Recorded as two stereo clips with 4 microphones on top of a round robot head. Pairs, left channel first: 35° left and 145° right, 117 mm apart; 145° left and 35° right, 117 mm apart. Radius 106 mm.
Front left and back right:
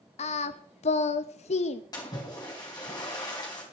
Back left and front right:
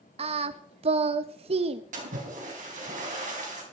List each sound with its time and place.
0.2 s singing: 5° left, 0.6 m
1.9 s a splash: 20° right, 3.5 m